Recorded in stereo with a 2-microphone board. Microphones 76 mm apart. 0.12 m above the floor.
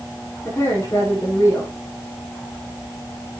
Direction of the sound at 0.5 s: 30° left (ahead or behind).